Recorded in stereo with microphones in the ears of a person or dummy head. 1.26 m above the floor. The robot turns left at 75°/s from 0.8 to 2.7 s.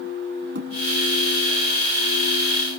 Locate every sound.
0.6 s a thud: 65° right (ahead or behind), 5.5 m